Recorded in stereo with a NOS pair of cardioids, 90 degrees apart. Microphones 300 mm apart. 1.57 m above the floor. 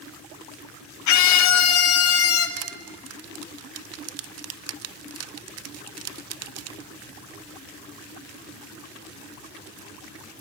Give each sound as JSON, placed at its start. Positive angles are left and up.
{"t": 1.1, "sound": "a scream", "azimuth_deg": 70, "distance_m": 1.7}
{"t": 2.6, "sound": "crushing", "azimuth_deg": -55, "distance_m": 0.8}